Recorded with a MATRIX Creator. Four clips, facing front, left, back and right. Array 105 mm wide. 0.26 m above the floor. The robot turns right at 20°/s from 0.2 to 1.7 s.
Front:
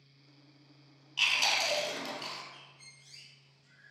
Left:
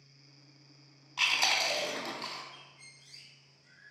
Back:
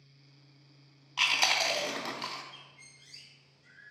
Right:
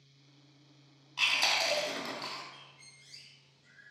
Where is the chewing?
165° left, 0.6 m; by 2.4 s 175° left, 0.6 m.